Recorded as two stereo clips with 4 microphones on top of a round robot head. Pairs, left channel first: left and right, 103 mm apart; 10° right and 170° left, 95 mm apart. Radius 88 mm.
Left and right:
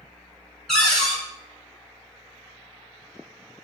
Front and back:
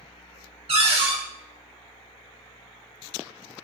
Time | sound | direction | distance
0.7 | a cupboard door | 175° left | 1.1 m